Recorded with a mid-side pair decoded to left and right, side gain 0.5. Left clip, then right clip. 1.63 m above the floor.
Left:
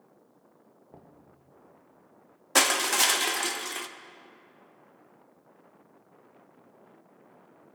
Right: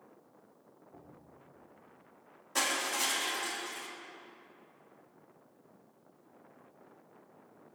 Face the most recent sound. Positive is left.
turn(degrees=65)